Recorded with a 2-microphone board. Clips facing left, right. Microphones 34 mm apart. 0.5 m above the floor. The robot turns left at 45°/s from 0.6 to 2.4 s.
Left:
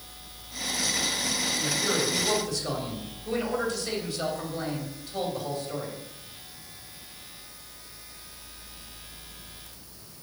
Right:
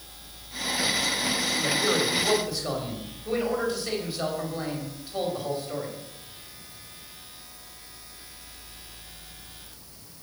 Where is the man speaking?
135° right, 3 m; by 6.0 s 170° right, 3 m.